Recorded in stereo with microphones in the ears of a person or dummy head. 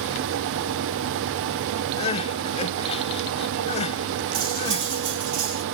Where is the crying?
35° left (ahead or behind), 0.6 m.